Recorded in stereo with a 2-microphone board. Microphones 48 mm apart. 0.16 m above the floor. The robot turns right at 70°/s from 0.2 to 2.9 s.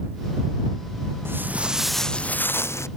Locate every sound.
1.2 s footsteps: 55° right (ahead or behind); by 2.9 s 75° left (ahead or behind)